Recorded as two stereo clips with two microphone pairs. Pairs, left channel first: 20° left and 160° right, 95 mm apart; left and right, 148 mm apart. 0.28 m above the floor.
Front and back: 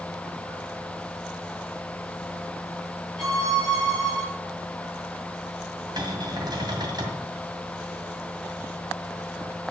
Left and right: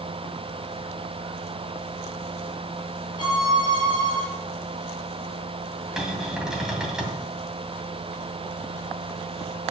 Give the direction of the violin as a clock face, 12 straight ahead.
7 o'clock.